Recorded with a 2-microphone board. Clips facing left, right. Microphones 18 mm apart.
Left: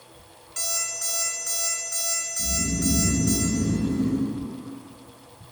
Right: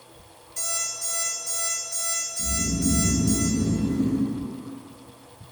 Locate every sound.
0.6 s an alarm clock: 70° left (ahead or behind), 2.5 m
2.4 s snoring: 65° left (ahead or behind), 1.0 m